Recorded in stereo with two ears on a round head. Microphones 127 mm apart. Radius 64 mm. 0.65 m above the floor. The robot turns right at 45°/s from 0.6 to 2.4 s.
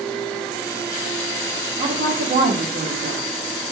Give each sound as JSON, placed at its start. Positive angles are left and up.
{"t": 1.8, "sound": "a woman speaking", "side_deg": -40, "distance_m": 1.3}